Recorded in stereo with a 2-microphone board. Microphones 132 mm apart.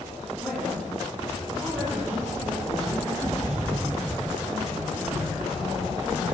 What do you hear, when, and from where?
0.4 s a woman speaking: centre (ahead or behind), 9.5 m; by 6.2 s 10° right (ahead or behind), 12.5 m